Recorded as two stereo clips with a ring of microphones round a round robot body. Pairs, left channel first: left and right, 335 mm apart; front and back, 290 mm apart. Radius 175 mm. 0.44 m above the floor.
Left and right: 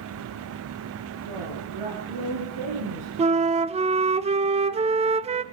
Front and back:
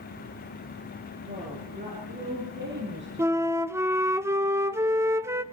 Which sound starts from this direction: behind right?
A flute, at 3.2 s.